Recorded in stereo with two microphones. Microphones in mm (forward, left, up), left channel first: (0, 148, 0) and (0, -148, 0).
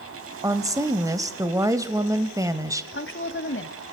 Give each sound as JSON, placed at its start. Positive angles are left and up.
{"t": 0.4, "sound": "a woman speaking", "side_deg": -10, "distance_m": 1.0}
{"t": 2.9, "sound": "a woman speaking", "side_deg": 40, "distance_m": 1.3}